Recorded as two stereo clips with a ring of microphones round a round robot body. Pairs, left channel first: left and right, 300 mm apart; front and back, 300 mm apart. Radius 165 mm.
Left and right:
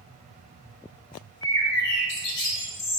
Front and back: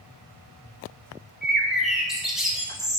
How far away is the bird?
About 0.8 m.